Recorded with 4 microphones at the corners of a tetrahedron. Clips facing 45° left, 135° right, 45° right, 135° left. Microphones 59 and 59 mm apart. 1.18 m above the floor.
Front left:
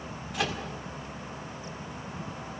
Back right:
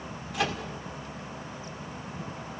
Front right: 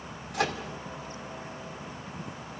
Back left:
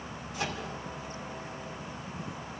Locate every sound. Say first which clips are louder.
0.3 s a microwave: back right 2 dB, front right 6 dB; 45° right, 2 m